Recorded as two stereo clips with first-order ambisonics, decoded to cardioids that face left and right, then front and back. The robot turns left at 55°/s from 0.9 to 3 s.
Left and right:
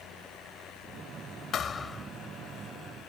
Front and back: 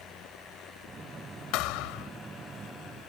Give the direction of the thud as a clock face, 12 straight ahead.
11 o'clock.